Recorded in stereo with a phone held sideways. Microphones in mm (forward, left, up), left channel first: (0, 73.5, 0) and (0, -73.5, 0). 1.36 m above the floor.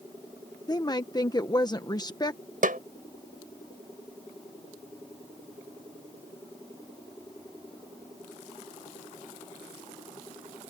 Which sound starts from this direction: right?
A snare drum, at 2.6 s.